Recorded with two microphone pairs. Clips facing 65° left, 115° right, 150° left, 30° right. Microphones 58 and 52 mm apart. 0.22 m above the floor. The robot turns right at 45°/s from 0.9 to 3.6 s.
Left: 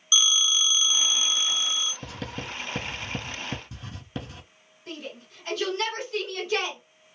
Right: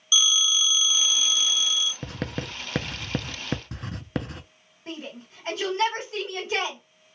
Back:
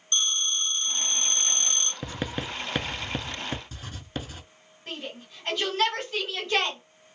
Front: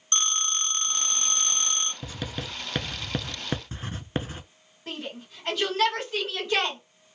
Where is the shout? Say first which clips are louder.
Right 1 dB, front 1 dB; 110° right, 1.9 m.